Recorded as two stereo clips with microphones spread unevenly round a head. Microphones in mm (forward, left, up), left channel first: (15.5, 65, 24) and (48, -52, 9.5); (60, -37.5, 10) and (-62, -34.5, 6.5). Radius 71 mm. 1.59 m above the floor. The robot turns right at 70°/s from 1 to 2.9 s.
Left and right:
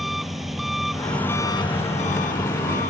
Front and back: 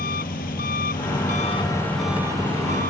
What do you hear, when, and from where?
0.0 s an engine running: 15° left; by 2.9 s 150° left